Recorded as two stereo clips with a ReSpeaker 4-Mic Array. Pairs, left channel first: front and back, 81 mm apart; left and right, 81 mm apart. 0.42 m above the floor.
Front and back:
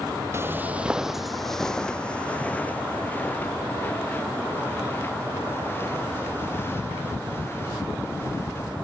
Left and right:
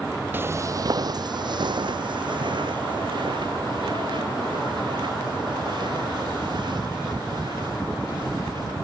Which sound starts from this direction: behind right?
Footsteps, at 0.3 s.